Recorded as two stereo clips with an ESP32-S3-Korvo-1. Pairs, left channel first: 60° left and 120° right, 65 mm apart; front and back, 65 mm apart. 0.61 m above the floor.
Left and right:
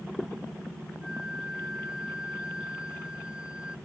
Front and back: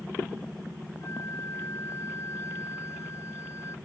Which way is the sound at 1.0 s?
45° right.